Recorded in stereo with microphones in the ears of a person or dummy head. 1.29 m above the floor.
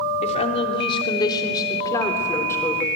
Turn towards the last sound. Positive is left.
turn(degrees=15)  # may be behind; listen again after turning